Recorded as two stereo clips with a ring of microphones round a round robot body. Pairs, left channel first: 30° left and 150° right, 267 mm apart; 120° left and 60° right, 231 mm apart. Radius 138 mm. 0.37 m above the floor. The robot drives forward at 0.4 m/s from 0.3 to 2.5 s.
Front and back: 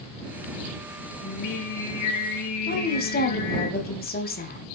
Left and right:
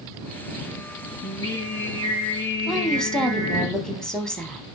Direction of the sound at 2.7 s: 35° left.